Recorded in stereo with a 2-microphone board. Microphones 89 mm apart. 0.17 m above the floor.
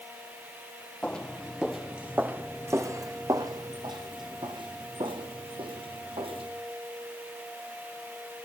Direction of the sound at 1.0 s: 10° left (ahead or behind).